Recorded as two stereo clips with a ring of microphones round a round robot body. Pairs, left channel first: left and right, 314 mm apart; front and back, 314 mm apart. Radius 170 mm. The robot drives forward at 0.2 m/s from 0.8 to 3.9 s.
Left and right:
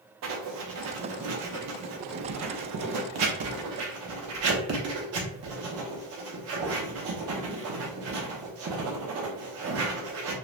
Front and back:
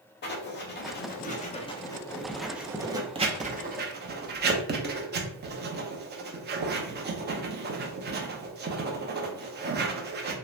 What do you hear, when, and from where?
0.2 s writing: 50° right, 0.6 m; by 10.3 s 125° right, 0.6 m